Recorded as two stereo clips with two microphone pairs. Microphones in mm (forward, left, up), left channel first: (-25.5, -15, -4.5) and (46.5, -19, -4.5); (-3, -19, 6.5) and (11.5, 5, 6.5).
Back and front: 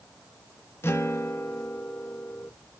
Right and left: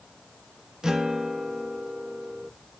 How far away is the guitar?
About 0.8 m.